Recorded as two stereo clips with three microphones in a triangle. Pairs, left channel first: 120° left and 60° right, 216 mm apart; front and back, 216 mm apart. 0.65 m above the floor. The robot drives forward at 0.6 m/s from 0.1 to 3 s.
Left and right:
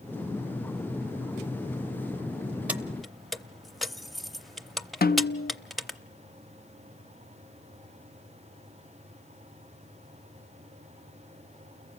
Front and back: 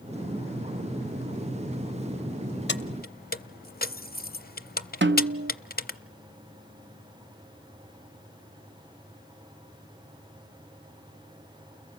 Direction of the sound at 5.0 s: 160° left.